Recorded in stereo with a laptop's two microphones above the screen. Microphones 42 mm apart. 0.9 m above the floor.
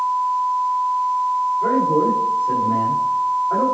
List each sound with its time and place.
1.6 s a man speaking: 70° left (ahead or behind), 3.5 m